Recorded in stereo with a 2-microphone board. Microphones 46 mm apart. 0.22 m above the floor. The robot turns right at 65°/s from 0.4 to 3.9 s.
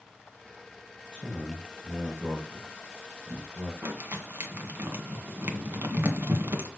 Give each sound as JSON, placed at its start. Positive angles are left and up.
{"t": 1.1, "sound": "a man speaking", "side_deg": 15, "distance_m": 1.5}
{"t": 3.8, "sound": "crumpling", "side_deg": -55, "distance_m": 1.5}